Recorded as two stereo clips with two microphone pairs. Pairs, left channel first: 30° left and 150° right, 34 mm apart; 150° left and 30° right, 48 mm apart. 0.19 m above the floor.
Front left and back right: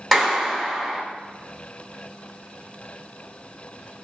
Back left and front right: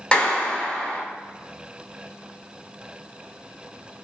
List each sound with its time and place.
0.1 s a clap: 115° left, 0.8 m